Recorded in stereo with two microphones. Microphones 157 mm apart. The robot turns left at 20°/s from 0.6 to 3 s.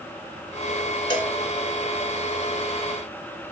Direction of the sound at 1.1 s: 30° left (ahead or behind).